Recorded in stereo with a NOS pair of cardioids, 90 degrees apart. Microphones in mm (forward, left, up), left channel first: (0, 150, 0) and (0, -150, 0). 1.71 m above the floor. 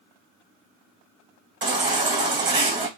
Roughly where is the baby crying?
Ahead right.